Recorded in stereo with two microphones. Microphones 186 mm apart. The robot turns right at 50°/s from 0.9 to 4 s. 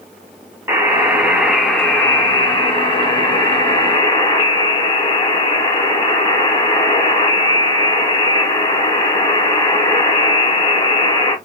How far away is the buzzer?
About 1.0 m.